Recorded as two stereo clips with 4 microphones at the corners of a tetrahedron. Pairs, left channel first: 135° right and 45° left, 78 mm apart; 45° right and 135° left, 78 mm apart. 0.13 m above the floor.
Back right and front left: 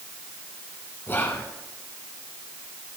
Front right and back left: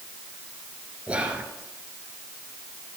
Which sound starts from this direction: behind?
Whispering, at 1.1 s.